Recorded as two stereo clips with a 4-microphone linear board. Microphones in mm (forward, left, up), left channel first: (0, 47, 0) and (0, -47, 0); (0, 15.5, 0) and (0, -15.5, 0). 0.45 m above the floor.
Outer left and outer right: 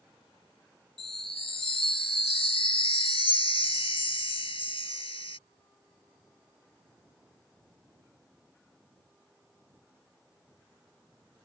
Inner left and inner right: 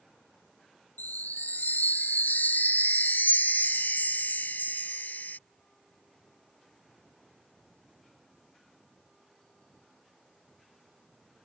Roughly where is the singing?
I don't hear singing.